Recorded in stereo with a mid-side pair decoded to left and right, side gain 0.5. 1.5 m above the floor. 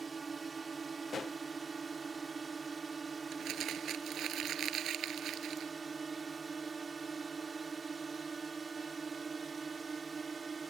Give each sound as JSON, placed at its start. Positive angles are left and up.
{"t": 0.0, "sound": "a drone", "azimuth_deg": -30}
{"t": 1.1, "sound": "a pop", "azimuth_deg": 35}
{"t": 3.3, "sound": "crumpling", "azimuth_deg": -60}